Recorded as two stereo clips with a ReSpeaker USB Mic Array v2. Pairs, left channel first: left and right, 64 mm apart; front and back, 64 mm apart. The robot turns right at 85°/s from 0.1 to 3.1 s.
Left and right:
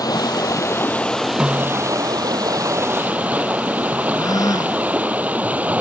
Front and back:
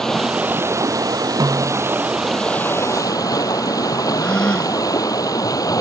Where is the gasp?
75° left.